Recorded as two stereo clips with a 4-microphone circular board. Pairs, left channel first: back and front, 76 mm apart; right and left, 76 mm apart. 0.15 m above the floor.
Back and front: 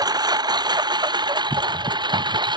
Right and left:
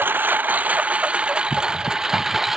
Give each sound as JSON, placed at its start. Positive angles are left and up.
{"t": 0.0, "sound": "a lawn mower", "azimuth_deg": 25}